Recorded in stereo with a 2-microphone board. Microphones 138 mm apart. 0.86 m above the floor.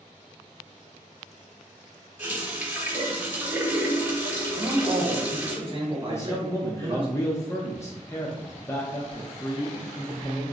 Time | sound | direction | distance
2.2 | a running tap | 10° right (ahead or behind) | 1.2 m
4.6 | a man speaking | 35° right (ahead or behind) | 1.1 m
6.1 | a man speaking | 20° left (ahead or behind) | 0.6 m